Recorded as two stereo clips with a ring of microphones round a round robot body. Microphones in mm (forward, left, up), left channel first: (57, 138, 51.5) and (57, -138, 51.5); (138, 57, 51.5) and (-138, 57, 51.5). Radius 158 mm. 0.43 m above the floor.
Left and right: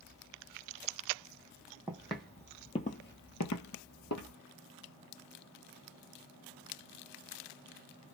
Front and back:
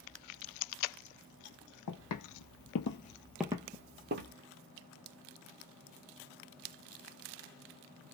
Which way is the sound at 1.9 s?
5° right.